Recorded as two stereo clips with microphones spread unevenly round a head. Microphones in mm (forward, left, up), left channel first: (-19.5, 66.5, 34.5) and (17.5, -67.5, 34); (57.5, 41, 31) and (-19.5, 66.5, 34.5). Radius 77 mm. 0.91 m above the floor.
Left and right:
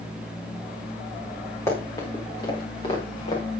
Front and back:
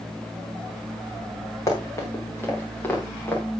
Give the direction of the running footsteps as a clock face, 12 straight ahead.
11 o'clock.